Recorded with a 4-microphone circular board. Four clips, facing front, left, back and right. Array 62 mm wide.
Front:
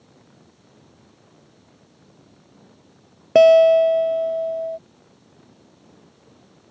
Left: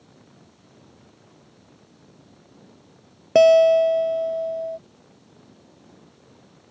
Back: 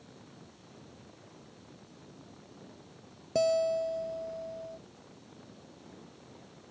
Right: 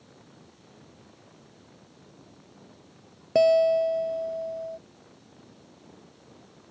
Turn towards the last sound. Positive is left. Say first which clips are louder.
# left 7 dB, front 17 dB
turn(degrees=25)